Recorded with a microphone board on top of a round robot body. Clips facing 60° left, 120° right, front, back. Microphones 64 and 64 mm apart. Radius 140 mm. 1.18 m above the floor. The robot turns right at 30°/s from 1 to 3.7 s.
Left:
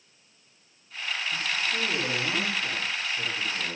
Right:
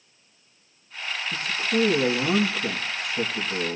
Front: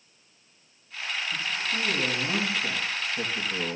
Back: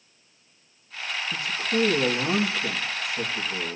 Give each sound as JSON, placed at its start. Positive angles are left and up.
{"t": 1.3, "sound": "a man speaking", "azimuth_deg": -155, "distance_m": 1.8}